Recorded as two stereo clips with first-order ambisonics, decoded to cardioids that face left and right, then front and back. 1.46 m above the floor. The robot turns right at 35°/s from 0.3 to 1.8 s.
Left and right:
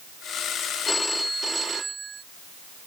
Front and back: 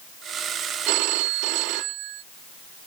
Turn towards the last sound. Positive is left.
turn(degrees=-160)